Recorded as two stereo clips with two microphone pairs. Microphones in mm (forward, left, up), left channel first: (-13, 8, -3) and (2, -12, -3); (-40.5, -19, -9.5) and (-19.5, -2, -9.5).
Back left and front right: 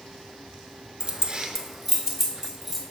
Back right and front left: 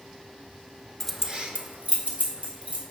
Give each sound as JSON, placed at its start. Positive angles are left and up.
{"t": 1.0, "sound": "keys jangling", "azimuth_deg": -80, "distance_m": 0.6}